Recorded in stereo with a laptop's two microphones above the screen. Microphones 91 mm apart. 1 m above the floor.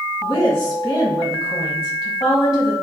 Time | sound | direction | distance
0.2 | a woman speaking | 55° left (ahead or behind) | 1.4 m